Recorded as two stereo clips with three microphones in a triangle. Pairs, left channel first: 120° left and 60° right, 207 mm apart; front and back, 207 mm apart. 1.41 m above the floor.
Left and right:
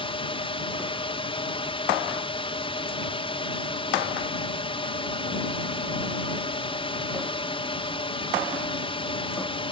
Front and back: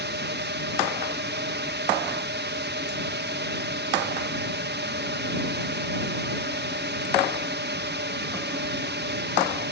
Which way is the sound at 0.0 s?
Straight behind.